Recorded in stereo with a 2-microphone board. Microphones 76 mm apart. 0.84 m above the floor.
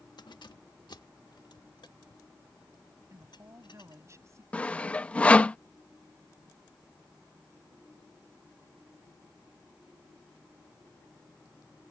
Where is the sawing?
15° left (ahead or behind).